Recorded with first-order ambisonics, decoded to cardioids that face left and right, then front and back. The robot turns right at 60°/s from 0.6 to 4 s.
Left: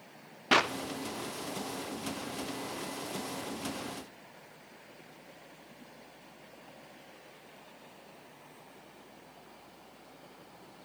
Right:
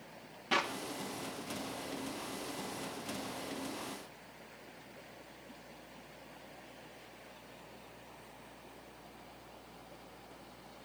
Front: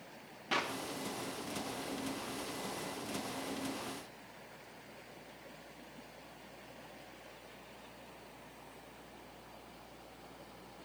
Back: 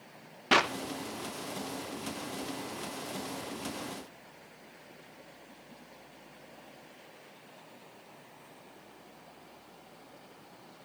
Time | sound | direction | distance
0.5 | a clap | 135° left | 0.6 m